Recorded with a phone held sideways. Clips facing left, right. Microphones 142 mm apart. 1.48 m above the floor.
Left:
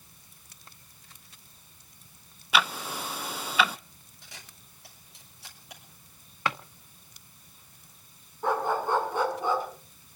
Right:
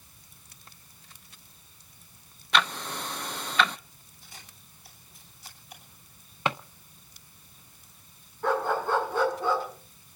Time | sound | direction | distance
2.5 | ticking | 5° left (ahead or behind) | 0.6 m
4.2 | a camera shutter | 80° left | 7.5 m
6.5 | a drawer | 20° right (ahead or behind) | 0.9 m
8.4 | a dog barking | 15° left (ahead or behind) | 6.5 m